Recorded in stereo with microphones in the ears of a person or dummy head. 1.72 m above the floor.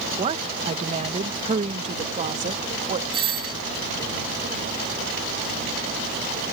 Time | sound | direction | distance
0.2 | a woman speaking | 35° right (ahead or behind) | ?
3.1 | a doorbell | 30° right (ahead or behind) | ?